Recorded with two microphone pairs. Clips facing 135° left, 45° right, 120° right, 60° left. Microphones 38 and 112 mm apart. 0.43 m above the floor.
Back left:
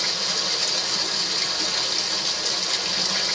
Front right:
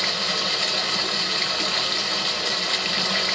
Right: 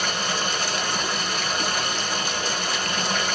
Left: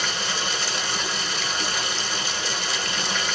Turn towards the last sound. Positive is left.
turn(degrees=-100)